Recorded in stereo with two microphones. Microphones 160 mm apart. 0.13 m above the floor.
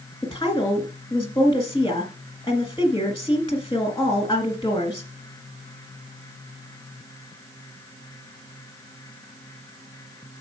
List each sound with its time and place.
0.2 s a woman speaking: 25° left (ahead or behind), 1.8 m